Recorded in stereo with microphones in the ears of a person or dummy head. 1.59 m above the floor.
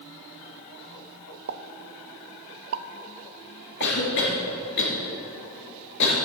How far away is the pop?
About 0.6 m.